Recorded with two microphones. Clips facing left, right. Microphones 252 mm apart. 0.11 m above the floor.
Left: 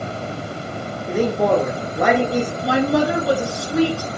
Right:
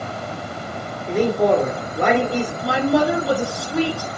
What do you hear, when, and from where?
1.1 s a man speaking: 5° left (ahead or behind), 1.6 m
2.6 s a woman speaking: centre (ahead or behind), 1.3 m